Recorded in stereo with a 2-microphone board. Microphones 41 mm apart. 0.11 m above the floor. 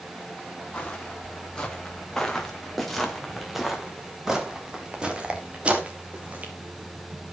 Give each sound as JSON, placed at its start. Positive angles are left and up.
{"t": 0.7, "sound": "footsteps", "side_deg": 25, "distance_m": 4.0}